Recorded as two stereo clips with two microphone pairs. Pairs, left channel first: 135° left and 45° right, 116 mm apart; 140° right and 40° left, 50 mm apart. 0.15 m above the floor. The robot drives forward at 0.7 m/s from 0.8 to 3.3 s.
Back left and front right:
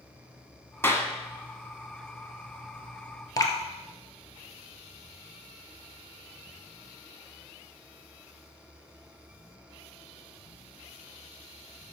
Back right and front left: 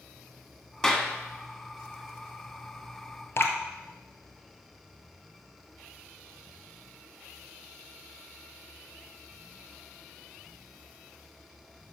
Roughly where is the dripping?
Behind.